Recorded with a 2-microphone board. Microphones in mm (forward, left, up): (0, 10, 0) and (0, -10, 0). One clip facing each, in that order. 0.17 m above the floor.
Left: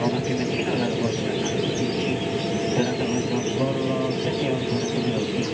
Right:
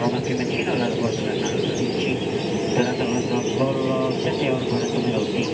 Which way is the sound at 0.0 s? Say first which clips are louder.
Right 1 dB; 10° right (ahead or behind).